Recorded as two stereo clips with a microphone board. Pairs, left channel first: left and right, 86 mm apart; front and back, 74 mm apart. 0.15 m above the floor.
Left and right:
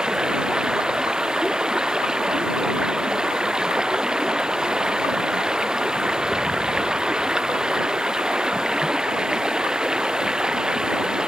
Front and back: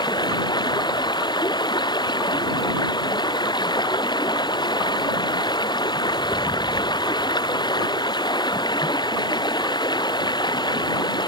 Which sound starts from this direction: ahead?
Running water, at 0.0 s.